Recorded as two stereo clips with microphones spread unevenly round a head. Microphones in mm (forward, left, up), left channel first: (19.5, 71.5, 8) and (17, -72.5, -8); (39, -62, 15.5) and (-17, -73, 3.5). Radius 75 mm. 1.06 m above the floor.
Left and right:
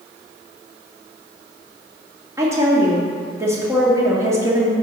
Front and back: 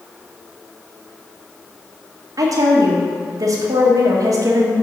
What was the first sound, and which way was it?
A woman speaking, 165° right.